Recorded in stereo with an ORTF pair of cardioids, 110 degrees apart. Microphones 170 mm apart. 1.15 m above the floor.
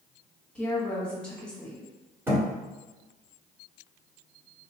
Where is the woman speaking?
5° left, 1.3 m.